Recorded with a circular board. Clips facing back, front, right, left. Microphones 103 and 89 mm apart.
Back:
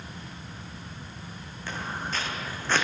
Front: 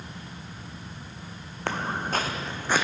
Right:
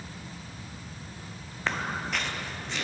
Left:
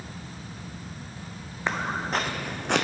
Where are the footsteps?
15° left, 0.8 m; by 2.9 s 85° left, 0.7 m.